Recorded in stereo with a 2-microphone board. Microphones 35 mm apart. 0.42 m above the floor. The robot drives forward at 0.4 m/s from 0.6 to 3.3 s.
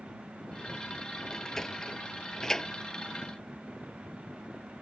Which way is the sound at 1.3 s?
15° left (ahead or behind).